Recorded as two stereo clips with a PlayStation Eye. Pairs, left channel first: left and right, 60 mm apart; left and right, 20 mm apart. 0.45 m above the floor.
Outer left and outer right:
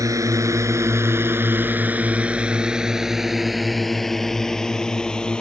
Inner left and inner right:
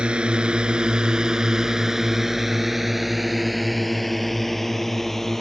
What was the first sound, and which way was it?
A drone, 65° right (ahead or behind).